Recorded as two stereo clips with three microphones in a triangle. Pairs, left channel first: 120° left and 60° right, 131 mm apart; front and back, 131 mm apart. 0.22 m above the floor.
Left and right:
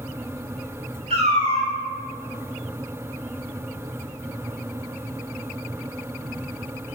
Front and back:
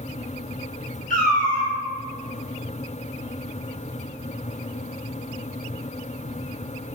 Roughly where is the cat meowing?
Ahead.